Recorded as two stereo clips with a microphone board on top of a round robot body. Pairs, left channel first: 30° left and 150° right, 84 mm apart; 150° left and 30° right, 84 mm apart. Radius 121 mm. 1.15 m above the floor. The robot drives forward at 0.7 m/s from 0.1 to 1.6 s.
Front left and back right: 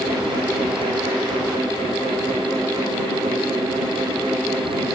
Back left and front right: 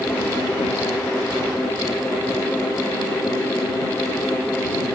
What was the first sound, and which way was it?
Only background noise.